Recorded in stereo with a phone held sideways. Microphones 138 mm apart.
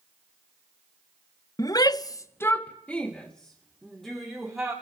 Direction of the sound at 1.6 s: 25° left (ahead or behind).